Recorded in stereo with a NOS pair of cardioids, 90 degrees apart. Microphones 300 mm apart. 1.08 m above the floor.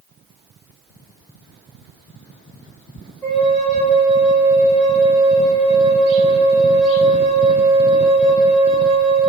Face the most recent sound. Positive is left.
turn(degrees=5)